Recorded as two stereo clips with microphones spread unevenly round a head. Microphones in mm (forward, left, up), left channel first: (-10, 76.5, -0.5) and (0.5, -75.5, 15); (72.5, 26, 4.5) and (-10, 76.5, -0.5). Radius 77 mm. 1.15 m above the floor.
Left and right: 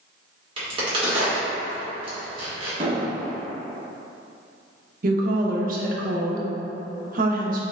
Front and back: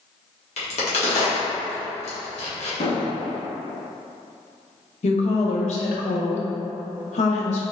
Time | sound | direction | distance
0.6 | a crack | 25° right | 1.5 m
2.8 | an explosion | 25° right | 1.1 m
5.0 | a woman speaking | 50° right | 0.8 m